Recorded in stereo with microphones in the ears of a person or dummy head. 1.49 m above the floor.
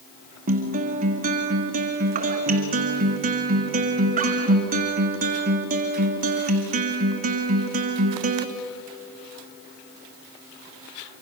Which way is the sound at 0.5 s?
40° right (ahead or behind).